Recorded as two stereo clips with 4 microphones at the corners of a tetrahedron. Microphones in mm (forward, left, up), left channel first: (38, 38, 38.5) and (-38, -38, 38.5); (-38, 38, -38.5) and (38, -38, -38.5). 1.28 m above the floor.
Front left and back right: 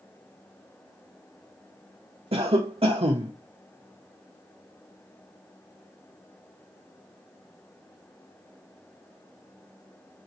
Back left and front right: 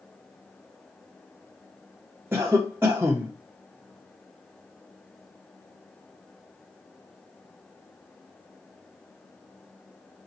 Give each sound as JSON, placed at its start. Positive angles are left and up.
{"t": 2.3, "sound": "a cough", "azimuth_deg": -110, "distance_m": 0.8}